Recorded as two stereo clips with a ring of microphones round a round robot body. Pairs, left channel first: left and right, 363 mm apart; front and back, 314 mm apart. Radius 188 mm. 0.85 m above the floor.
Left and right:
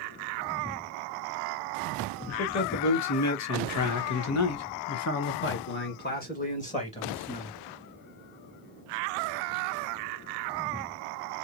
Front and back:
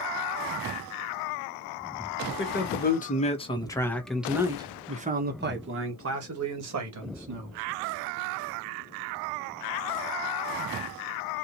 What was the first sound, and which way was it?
A man speaking, 50° left.